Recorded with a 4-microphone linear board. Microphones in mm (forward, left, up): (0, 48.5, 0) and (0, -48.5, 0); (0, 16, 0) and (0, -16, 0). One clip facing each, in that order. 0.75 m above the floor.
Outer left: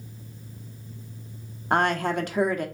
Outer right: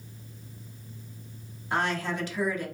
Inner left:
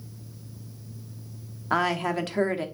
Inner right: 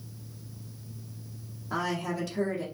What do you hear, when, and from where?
1.7 s a woman speaking: 55° left (ahead or behind), 0.7 m